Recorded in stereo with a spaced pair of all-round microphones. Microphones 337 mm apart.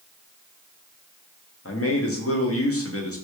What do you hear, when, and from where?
1.6 s a man speaking: 45° left (ahead or behind), 0.7 m